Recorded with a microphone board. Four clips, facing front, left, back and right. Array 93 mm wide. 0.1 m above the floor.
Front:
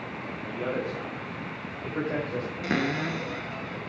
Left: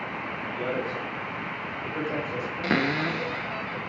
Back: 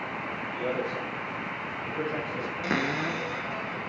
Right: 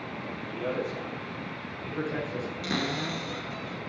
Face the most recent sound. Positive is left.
turn(degrees=90)